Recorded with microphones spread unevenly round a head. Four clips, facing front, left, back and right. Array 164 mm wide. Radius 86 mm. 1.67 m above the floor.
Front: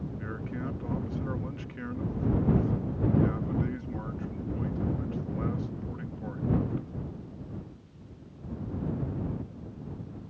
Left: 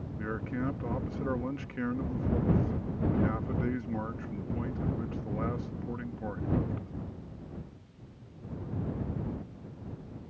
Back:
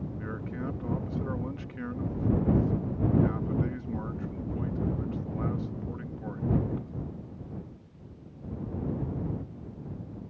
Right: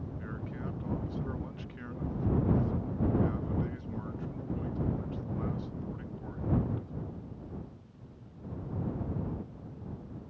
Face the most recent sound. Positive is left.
turn(degrees=90)